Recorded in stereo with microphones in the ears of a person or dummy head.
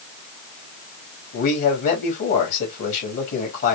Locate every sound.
1.3 s a man speaking: 50° left (ahead or behind), 3 m